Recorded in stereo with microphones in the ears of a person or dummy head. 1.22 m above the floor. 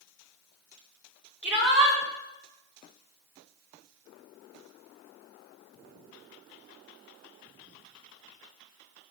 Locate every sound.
1.4 s a shout: 10° right (ahead or behind), 3.5 m